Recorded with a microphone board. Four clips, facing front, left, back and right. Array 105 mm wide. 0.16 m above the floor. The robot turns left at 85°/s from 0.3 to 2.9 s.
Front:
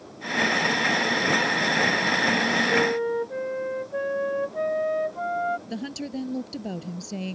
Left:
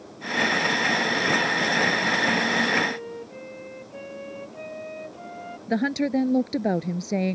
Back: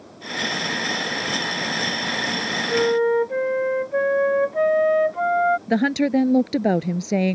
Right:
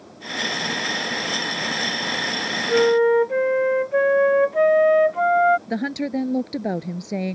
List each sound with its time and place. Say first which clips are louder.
2.7 s a flute: right 12 dB, back 10 dB; 95° right; by 5.6 s 115° right
5.7 s a woman speaking: left 1 dB, back 13 dB; 175° left